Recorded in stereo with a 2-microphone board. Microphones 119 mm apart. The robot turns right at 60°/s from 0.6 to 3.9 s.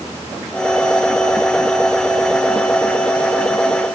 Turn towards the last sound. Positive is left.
No sound to turn to.